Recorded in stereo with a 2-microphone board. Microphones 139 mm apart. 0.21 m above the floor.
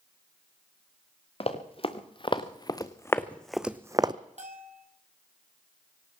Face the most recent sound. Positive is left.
turn(degrees=-60)  # may be behind; listen again after turning